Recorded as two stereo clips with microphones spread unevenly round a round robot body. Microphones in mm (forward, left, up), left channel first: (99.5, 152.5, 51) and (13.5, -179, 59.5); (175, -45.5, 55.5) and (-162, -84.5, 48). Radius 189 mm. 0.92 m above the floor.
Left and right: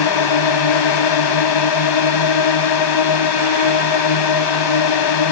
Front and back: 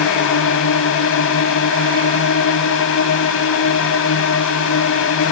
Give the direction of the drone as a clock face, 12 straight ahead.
10 o'clock.